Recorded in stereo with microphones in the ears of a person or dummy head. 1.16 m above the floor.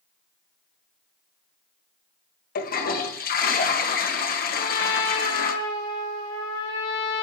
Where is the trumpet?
65° left (ahead or behind), 7.5 m.